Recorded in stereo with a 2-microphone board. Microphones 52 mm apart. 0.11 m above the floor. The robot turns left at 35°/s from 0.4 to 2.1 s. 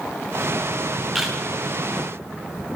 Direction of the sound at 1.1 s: 5° right (ahead or behind).